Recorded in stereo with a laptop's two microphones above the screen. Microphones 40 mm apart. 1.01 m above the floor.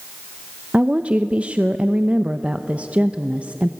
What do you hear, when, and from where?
0.7 s a woman speaking: 30° right (ahead or behind), 0.8 m